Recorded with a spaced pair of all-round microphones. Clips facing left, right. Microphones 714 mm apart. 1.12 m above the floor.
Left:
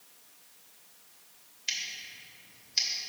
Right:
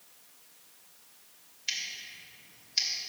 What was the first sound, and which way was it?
Scissors, centre (ahead or behind).